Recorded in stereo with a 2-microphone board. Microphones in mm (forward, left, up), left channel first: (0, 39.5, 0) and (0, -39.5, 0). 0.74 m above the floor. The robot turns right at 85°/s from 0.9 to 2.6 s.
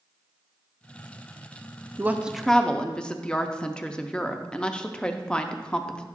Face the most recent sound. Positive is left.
turn(degrees=15)